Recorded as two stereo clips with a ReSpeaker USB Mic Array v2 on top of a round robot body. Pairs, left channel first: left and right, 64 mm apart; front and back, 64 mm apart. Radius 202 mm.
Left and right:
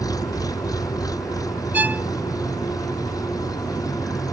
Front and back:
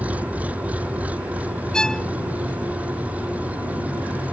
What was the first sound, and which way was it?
An engine running, 110° left.